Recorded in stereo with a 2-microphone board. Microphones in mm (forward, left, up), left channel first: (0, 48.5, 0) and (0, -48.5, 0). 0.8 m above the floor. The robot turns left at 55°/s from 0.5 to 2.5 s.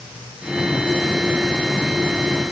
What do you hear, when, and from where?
Only background noise.